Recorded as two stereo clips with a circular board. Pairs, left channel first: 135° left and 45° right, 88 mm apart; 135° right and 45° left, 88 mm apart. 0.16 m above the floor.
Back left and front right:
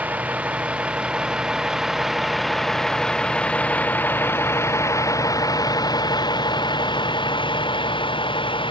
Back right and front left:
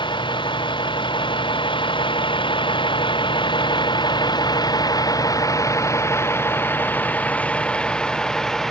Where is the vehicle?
115° right; by 8.7 s 140° left.